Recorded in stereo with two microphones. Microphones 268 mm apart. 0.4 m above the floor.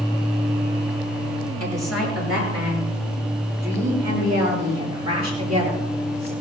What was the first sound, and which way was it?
A woman speaking, 65° right (ahead or behind).